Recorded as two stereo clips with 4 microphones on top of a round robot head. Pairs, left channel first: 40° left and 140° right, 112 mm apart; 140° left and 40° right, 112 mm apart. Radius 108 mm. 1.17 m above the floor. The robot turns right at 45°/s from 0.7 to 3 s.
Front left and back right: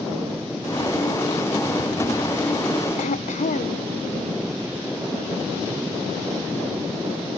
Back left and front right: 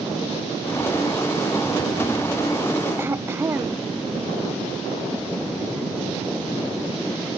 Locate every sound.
3.0 s throat clearing: 30° left